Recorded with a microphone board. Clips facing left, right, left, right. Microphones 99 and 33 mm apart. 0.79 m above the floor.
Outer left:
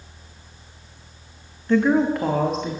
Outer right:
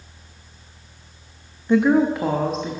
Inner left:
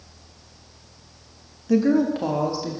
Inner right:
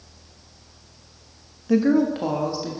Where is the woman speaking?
15° right (ahead or behind), 0.7 m; by 2.8 s centre (ahead or behind), 1.6 m.